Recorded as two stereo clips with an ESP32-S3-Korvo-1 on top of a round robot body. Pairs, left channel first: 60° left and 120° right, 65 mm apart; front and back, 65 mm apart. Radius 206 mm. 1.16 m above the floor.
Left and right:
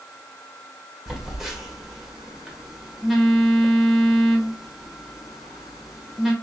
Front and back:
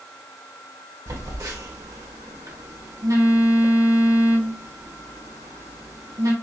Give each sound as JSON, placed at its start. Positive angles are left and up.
{"t": 1.1, "sound": "a phone buzzing", "azimuth_deg": 155, "distance_m": 1.5}